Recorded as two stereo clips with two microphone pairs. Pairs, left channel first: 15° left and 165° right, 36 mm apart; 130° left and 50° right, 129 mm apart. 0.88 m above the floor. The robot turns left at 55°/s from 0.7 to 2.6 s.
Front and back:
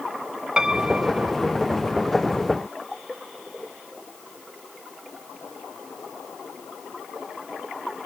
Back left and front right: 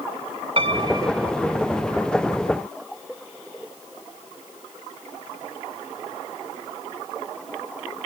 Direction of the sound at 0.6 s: 95° right.